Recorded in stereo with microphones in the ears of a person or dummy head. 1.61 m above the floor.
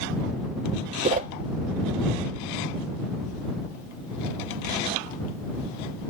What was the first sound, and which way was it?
A whoosh, 40° right (ahead or behind).